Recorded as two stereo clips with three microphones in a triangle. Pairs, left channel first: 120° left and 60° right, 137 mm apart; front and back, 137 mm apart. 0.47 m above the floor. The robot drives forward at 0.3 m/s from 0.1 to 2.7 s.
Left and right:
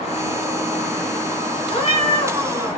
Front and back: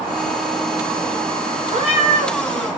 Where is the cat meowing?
150° left, 1.3 m; by 2.4 s 155° left, 1.5 m.